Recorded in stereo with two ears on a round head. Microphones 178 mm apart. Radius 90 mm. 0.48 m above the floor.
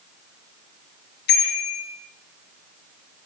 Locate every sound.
1.3 s a bicycle bell: 55° left (ahead or behind), 6.5 m